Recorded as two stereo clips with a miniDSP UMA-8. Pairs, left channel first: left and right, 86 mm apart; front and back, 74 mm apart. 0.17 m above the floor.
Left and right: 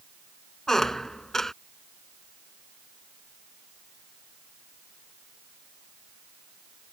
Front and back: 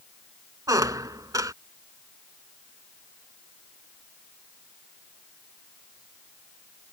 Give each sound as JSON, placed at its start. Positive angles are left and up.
{"t": 0.7, "sound": "a squeak", "azimuth_deg": 175}